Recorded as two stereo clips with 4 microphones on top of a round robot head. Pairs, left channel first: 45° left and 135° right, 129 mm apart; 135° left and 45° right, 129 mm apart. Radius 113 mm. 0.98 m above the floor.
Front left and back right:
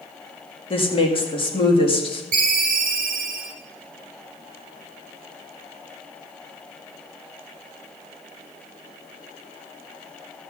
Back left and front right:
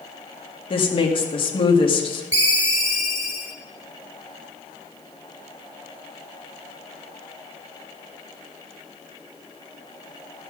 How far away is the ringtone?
About 1.2 m.